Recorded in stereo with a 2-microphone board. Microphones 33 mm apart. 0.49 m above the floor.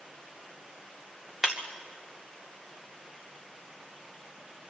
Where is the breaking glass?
10° right (ahead or behind), 2.5 m.